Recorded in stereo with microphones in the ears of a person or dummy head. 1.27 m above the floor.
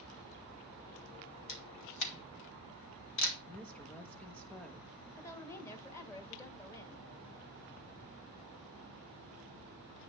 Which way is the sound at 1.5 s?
65° left (ahead or behind).